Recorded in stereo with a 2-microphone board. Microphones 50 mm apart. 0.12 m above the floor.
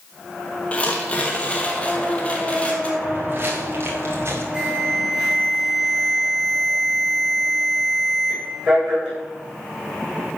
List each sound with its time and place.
0.7 s tearing paper: 25° left (ahead or behind), 3 m
3.0 s footsteps: 40° right (ahead or behind), 6 m; by 4.4 s 60° right (ahead or behind), 5.5 m
4.5 s an alarm: 25° right (ahead or behind), 9.5 m